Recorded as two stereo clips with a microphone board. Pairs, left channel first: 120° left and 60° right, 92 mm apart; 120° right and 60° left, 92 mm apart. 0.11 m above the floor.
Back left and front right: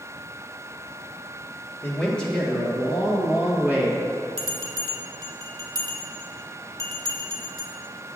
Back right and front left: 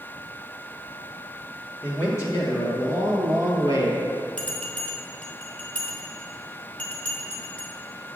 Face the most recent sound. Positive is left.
turn(degrees=-45)